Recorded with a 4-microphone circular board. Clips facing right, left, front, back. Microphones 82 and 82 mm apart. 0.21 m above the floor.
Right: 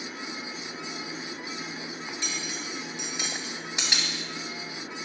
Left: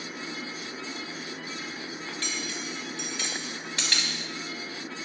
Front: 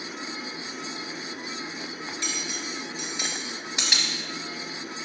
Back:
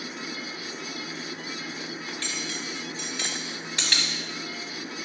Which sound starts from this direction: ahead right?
Cutlery clinking, at 2.1 s.